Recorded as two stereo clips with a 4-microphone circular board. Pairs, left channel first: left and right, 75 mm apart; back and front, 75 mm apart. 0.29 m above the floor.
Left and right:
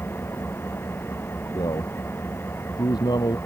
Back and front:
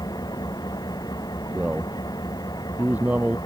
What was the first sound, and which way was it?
An engine running, 150° left.